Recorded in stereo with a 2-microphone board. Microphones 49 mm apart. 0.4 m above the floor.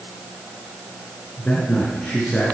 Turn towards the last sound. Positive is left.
turn(degrees=10)  # may be behind; listen again after turning